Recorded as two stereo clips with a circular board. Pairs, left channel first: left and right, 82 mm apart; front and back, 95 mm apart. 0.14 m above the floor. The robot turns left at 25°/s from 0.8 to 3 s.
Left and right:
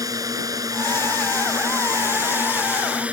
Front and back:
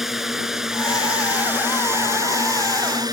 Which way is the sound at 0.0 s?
95° right.